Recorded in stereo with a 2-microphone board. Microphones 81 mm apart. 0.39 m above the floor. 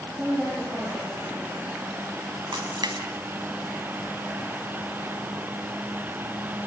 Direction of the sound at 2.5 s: 70° right (ahead or behind).